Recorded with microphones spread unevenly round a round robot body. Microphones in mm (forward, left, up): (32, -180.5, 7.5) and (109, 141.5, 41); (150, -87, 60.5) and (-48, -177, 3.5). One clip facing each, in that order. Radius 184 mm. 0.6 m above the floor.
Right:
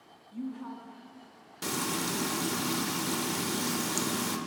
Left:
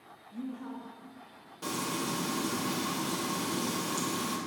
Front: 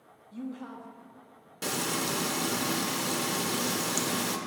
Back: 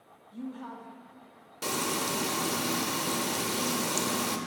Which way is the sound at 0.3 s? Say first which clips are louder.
Right 1 dB, front 1 dB; 40° right.